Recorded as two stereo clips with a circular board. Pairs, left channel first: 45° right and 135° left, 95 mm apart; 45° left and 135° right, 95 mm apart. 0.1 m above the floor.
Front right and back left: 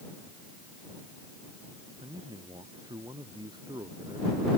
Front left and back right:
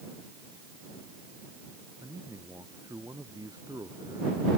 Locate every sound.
2.0 s a man speaking: 170° left; by 4.5 s straight behind